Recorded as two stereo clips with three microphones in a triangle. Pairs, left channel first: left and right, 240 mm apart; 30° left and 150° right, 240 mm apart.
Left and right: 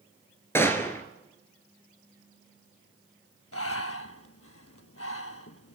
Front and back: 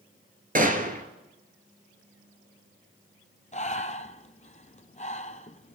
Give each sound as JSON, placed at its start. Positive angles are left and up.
{"t": 0.6, "sound": "a gunshot", "azimuth_deg": 170, "distance_m": 1.1}
{"t": 3.5, "sound": "breathing", "azimuth_deg": 85, "distance_m": 0.5}